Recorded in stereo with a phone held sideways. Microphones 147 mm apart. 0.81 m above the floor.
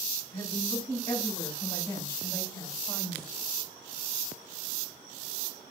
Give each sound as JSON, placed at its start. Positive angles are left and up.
{"t": 0.3, "sound": "a woman speaking", "side_deg": 20, "distance_m": 5.5}